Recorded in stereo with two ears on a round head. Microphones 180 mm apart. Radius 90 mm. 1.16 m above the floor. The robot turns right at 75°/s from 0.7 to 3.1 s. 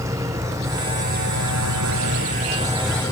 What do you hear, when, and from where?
0.0 s an engine running: 165° right; by 3.1 s 15° left